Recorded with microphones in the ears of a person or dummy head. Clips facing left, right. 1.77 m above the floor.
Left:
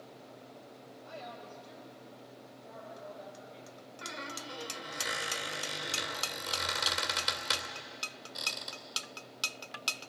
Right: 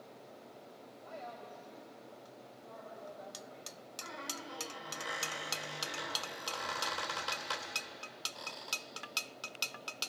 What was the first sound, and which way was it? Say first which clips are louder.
A woman speaking: left 1 dB; 15° left (ahead or behind).